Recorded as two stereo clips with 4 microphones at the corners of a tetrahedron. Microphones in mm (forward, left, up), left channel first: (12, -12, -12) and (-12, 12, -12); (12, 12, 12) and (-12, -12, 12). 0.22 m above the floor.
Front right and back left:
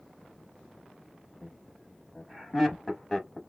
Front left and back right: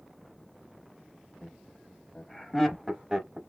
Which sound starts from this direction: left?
Laughter, at 1.4 s.